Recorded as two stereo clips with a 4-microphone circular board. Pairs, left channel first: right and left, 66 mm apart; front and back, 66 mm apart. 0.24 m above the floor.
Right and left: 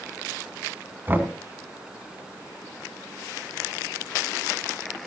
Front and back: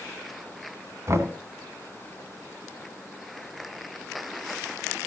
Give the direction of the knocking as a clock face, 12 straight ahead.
7 o'clock.